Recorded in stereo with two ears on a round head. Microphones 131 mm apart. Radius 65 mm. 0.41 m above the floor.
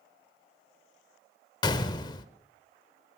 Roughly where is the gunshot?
Left.